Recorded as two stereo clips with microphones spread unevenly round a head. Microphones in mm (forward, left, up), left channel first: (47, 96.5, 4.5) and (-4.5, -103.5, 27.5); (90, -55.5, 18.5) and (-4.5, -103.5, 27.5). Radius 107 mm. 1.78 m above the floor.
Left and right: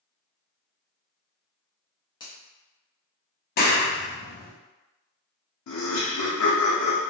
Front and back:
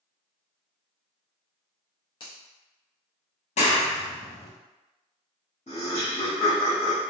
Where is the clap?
30° left, 0.7 m.